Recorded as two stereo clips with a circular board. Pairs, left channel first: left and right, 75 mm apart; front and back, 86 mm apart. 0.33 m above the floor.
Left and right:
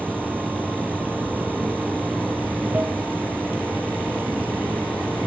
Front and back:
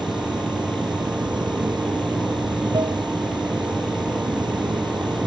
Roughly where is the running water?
Behind right.